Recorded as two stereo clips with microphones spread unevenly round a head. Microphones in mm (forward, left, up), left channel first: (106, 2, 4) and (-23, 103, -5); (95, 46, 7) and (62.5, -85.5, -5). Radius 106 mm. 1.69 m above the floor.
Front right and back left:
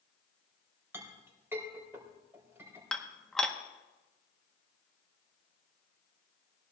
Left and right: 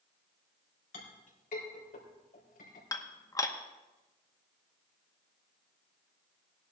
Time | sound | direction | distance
0.9 | a clink | 65° left | 4 m
2.9 | dishes clattering | 40° left | 1.0 m